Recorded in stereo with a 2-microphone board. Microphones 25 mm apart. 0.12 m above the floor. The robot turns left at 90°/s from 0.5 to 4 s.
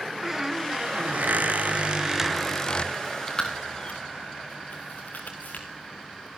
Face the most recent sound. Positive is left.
turn(degrees=80)